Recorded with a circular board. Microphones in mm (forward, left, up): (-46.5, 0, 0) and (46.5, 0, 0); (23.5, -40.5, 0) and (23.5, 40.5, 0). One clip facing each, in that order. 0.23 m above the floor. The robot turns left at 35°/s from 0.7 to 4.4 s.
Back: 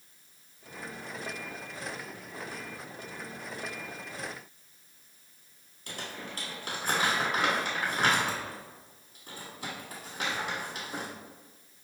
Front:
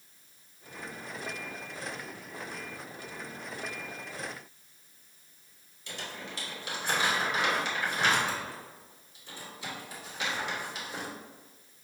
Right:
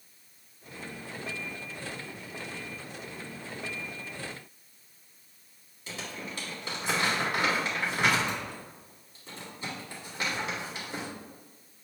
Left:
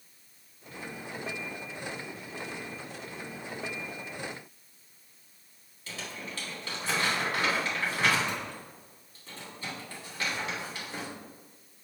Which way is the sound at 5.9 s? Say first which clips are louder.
Back 1 dB, right 1 dB; 155° right.